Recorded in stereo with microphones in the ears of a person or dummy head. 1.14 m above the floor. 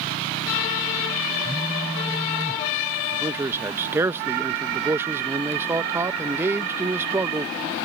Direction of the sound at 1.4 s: 5° left (ahead or behind).